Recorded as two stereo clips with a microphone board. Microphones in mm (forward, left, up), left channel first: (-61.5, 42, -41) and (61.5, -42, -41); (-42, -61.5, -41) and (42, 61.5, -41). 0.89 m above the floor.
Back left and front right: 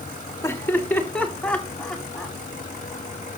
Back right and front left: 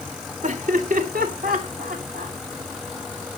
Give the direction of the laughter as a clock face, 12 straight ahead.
9 o'clock.